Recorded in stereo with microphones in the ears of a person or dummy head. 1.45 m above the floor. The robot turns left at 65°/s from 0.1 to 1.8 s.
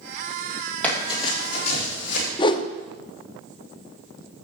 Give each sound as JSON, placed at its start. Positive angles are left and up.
{"t": 0.8, "sound": "running footsteps", "side_deg": 10, "distance_m": 3.0}
{"t": 2.4, "sound": "a whoosh", "side_deg": 30, "distance_m": 0.5}